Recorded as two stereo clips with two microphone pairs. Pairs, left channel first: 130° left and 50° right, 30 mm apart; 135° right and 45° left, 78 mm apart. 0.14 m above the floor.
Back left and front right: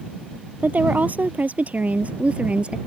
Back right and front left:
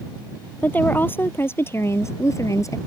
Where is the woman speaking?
70° right; by 2.8 s 95° right.